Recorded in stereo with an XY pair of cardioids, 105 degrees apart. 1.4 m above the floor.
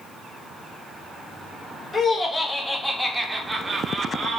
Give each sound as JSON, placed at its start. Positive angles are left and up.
{"t": 1.9, "sound": "laughter", "azimuth_deg": 35, "distance_m": 2.0}